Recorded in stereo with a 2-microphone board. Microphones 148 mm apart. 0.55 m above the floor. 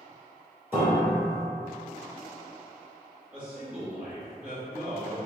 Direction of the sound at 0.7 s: 15° right (ahead or behind).